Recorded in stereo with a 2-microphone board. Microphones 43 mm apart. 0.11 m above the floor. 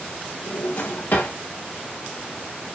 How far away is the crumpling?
No crumpling in this recording.